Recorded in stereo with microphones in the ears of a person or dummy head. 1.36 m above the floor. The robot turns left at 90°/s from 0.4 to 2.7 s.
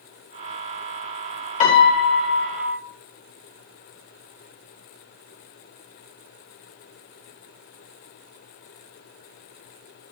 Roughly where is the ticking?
I don't hear ticking.